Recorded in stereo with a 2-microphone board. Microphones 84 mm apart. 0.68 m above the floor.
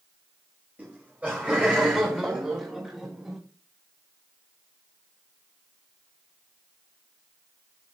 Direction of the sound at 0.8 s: 20° right (ahead or behind).